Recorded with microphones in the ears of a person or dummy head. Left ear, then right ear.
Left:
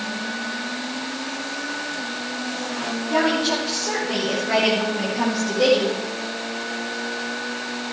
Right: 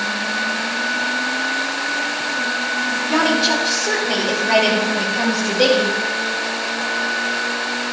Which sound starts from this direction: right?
A woman speaking, at 3.1 s.